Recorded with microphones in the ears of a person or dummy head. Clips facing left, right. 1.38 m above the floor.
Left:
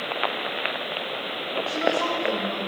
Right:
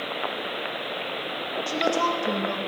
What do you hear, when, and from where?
1.7 s a woman speaking: 50° right (ahead or behind), 2 m